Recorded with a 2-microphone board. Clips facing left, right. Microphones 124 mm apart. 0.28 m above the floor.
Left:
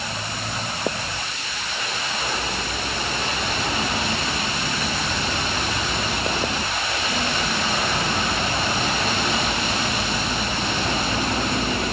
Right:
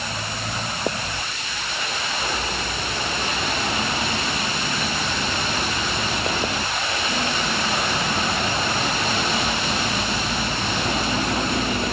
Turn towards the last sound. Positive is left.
No sound to turn to.